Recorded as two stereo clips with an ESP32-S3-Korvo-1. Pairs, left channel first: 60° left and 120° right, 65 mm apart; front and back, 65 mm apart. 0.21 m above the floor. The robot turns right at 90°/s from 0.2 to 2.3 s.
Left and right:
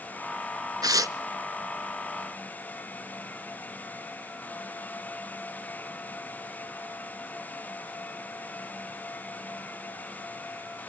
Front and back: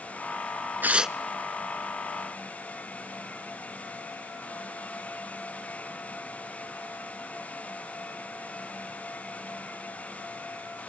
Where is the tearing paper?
120° right, 0.5 m; by 1.2 s 90° right, 0.5 m.